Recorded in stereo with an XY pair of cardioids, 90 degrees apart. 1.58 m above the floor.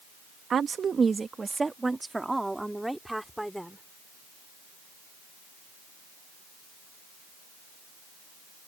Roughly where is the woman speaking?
Ahead right.